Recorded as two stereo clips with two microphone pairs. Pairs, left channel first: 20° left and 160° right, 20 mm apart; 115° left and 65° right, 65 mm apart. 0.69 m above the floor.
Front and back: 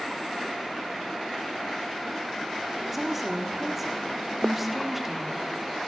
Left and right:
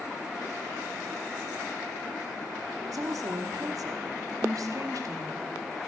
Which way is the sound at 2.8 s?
80° right.